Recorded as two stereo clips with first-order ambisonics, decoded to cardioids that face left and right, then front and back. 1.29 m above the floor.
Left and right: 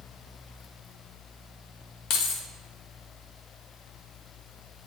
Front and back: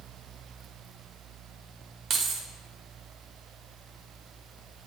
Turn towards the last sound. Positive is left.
turn(degrees=120)